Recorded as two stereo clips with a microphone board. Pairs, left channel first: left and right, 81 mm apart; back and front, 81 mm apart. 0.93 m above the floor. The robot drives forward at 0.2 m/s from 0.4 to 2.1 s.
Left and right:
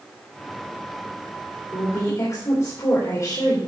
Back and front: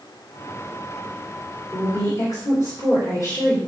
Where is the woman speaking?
135° left, 3 m.